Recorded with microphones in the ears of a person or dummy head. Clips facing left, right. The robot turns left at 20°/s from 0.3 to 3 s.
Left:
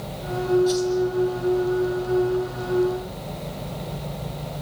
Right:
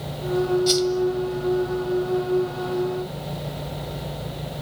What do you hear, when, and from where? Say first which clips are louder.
0.7 s a whoosh: right 1 dB; 40° right (ahead or behind), 2.5 m; by 0.9 s 45° right (ahead or behind), 2.5 m